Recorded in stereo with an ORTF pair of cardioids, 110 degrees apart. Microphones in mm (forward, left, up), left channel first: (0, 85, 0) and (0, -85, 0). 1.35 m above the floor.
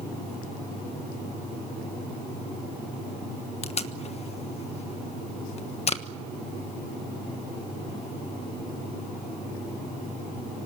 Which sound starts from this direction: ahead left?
Tape being pulled, at 3.6 s.